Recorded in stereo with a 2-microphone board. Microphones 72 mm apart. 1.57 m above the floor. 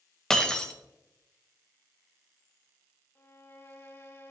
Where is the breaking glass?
5° left (ahead or behind), 0.7 m.